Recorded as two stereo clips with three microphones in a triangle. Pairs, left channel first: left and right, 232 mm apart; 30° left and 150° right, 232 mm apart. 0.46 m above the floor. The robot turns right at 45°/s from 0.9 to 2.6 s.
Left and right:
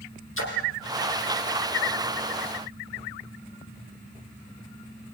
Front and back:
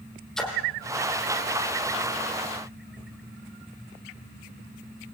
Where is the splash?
120° left, 5 m.